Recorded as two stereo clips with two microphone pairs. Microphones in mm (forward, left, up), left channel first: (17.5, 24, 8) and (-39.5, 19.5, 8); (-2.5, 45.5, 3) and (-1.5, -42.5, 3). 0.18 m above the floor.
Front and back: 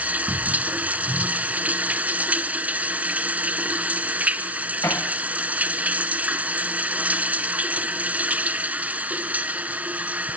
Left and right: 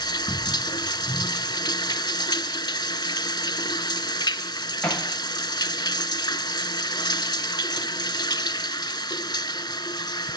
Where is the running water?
125° left, 0.8 m.